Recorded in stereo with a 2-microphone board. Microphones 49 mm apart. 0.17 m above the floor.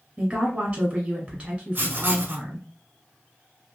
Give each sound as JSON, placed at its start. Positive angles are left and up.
{"t": 0.2, "sound": "a woman speaking", "side_deg": -20, "distance_m": 1.0}
{"t": 1.8, "sound": "writing", "side_deg": -45, "distance_m": 0.7}